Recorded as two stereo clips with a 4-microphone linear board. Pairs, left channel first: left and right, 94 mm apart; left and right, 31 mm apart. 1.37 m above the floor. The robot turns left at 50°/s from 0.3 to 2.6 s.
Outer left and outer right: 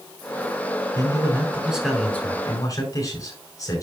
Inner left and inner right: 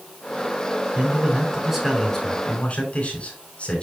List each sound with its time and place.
0.9 s a man speaking: 135° right, 6.5 m; by 3.8 s 145° left, 6.5 m